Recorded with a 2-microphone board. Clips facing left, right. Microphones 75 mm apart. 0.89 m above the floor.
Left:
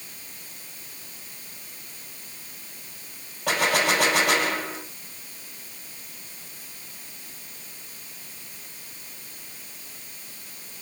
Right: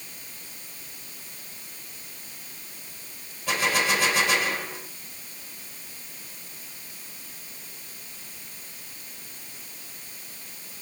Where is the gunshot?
75° left (ahead or behind), 3.5 m.